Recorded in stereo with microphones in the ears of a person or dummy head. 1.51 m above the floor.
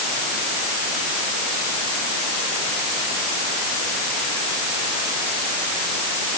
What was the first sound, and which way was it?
Only background noise.